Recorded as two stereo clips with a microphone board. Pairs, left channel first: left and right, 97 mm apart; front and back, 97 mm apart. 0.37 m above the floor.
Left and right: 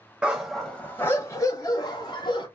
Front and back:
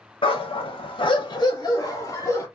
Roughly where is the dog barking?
Ahead.